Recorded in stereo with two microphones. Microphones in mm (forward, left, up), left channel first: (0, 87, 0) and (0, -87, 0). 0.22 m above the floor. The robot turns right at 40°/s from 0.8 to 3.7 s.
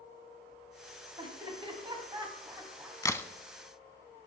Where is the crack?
20° left (ahead or behind), 0.5 m; by 3.3 s 10° left (ahead or behind), 0.5 m.